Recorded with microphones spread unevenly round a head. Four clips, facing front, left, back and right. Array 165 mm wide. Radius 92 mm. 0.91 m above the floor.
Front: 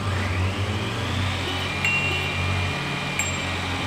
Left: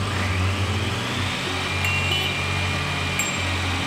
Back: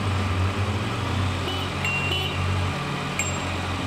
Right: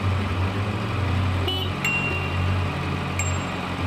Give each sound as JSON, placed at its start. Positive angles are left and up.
{"t": 1.8, "sound": "a bicycle bell", "azimuth_deg": -20}